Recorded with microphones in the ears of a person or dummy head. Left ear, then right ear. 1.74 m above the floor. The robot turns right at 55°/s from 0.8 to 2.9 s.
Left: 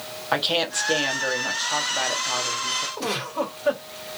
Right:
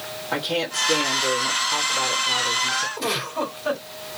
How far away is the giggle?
About 2.5 m.